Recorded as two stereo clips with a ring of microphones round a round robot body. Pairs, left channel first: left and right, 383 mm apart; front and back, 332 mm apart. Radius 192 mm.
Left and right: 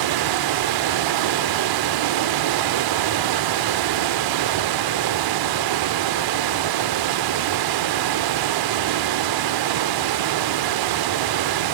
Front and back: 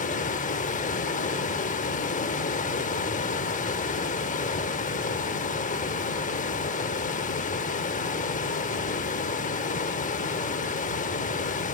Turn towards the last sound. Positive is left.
turn(degrees=-70)